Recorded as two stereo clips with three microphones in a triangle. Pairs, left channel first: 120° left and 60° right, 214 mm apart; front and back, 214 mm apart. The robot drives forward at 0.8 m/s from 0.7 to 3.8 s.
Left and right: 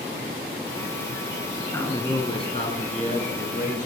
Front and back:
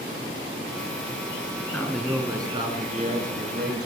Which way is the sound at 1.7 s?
60° left.